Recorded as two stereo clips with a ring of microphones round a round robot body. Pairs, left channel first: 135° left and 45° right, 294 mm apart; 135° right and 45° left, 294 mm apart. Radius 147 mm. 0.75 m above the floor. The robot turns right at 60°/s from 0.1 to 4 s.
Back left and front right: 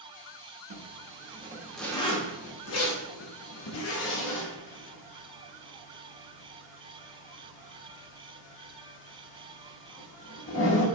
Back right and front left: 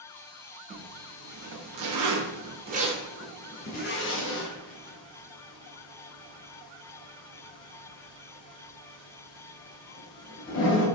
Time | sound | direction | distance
0.7 | a zipper | 20° right | 0.8 m